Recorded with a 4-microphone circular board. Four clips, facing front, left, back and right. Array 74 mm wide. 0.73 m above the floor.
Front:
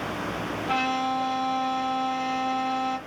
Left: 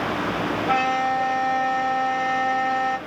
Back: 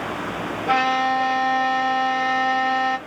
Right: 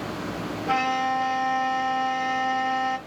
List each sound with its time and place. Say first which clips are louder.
0.7 s a violin: left 1 dB, back 7 dB; 170° left, 2 m